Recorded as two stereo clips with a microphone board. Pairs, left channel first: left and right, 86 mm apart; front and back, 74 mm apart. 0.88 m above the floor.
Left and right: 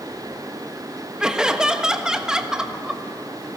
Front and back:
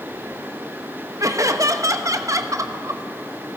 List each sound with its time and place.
1.2 s laughter: 170° right, 1.0 m